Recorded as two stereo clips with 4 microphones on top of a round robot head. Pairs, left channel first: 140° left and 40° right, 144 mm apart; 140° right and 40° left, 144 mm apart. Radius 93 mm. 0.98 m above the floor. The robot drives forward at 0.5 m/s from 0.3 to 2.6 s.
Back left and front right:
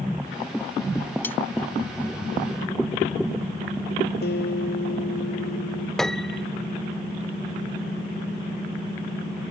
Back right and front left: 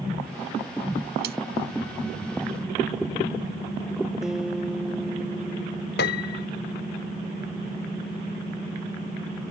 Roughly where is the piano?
Behind right.